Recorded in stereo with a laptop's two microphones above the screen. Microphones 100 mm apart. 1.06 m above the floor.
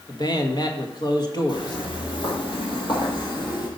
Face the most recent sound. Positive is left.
turn(degrees=45)  # may be behind; listen again after turning